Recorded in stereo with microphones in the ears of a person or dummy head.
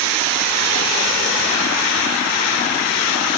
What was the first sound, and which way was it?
Only background noise.